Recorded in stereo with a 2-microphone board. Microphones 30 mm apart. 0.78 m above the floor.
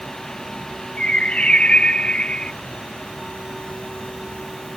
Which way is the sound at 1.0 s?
40° left (ahead or behind).